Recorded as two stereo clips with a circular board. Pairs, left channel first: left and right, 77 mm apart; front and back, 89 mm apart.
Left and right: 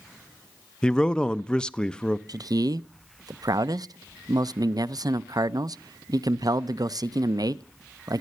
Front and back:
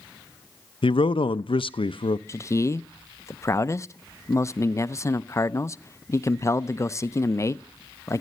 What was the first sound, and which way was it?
A man speaking, 10° left.